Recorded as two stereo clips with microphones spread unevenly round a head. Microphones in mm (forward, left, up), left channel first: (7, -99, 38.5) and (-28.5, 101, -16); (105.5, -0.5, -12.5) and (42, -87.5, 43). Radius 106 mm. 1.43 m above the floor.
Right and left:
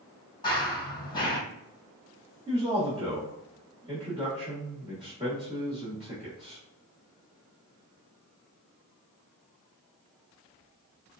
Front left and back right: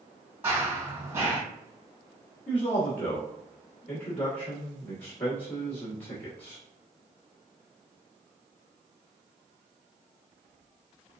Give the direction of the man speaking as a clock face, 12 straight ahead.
11 o'clock.